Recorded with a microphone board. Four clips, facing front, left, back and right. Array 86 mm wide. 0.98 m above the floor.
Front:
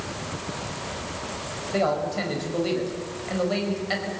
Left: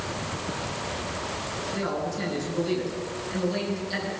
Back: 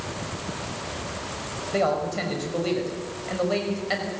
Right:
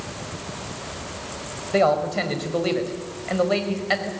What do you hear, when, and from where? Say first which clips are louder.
1.7 s a man speaking: right 12 dB, even; 95° right, 5 m